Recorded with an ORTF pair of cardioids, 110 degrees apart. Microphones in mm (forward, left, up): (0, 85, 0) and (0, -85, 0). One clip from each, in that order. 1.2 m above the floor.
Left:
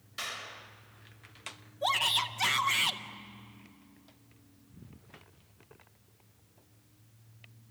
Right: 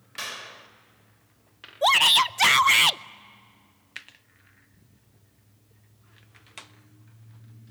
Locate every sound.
0.2 s a clap: 30° right, 1.8 m
1.8 s a shout: 45° right, 0.6 m